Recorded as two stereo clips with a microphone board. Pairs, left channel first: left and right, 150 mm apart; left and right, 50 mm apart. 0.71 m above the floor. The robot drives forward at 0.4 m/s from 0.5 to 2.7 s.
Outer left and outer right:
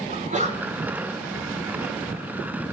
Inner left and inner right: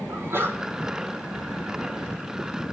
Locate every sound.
0.1 s a sneeze: 55° right (ahead or behind), 4 m